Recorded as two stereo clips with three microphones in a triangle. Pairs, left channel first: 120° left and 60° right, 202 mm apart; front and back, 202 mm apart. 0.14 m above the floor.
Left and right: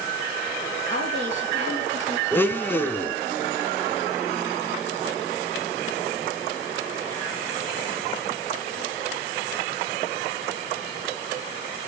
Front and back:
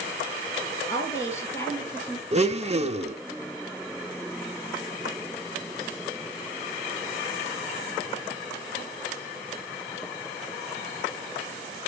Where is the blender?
170° right, 0.5 m.